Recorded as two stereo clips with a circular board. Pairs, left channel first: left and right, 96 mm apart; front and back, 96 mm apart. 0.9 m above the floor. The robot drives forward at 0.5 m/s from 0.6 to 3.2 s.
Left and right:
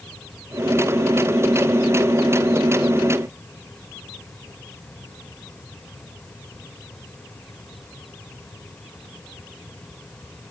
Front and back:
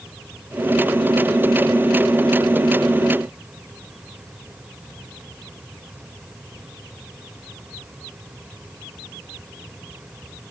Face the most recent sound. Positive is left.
No sound to turn to.